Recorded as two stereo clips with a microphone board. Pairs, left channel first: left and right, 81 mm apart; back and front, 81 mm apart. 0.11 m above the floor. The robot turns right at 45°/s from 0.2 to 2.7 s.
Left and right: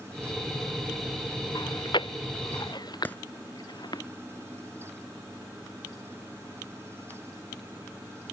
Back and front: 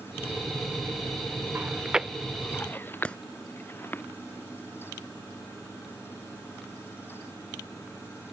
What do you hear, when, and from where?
1.6 s chewing: 65° left; by 4.0 s 115° left
3.0 s a clap: 125° left